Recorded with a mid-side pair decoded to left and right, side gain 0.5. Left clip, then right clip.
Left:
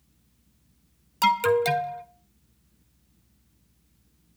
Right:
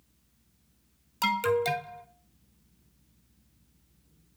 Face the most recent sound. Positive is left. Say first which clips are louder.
# left 5 dB
turn(degrees=25)